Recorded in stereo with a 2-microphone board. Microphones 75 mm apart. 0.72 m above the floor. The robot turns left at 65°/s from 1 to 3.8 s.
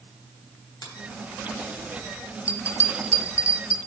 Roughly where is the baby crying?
I don't hear a baby crying.